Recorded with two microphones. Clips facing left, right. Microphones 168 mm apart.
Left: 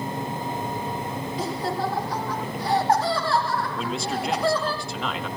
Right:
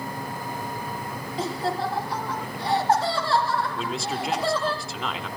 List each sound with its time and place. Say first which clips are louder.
1.4 s laughter: right 1 dB; 30° right (ahead or behind), 8 m
3.8 s a man speaking: left 1 dB; centre (ahead or behind), 1.7 m